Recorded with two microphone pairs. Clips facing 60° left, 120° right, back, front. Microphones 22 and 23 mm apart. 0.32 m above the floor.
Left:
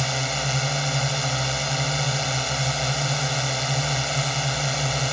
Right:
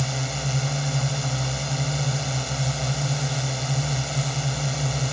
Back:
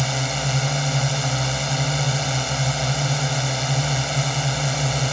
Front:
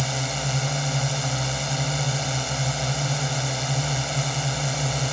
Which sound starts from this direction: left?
A drone, at 0.0 s.